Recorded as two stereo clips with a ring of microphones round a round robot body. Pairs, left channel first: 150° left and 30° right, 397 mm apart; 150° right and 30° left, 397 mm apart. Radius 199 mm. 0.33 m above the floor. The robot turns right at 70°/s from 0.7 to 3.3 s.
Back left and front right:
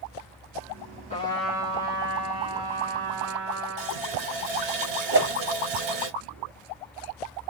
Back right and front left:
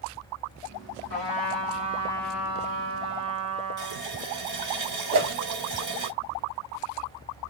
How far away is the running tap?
About 1.3 m.